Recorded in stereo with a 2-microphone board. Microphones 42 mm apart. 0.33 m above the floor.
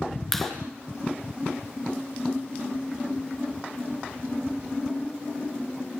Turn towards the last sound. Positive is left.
turn(degrees=5)  # may be behind; listen again after turning